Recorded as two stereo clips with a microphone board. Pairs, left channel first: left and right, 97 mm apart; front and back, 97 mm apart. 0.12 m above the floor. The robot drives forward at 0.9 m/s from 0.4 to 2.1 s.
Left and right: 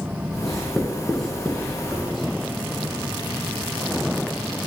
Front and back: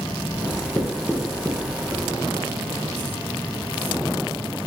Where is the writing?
Straight ahead, 0.9 m; by 2.2 s straight behind, 1.0 m.